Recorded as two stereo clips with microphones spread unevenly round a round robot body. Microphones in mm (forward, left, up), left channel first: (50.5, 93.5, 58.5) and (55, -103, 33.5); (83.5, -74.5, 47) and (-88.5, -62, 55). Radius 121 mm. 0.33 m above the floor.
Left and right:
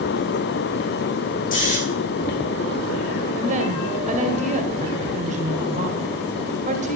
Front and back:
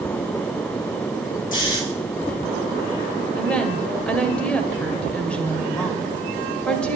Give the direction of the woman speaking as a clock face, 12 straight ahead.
3 o'clock.